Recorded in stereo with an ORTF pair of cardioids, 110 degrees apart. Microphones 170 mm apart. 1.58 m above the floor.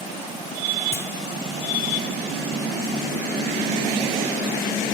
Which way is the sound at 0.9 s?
15° left.